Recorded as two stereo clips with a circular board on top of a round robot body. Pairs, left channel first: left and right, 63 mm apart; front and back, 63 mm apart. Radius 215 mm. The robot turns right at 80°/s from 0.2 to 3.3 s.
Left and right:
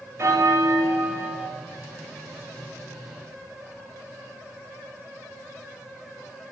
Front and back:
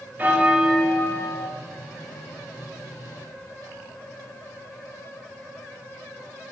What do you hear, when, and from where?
0.2 s a bell: 125° right, 0.7 m; by 1.5 s 25° right, 0.7 m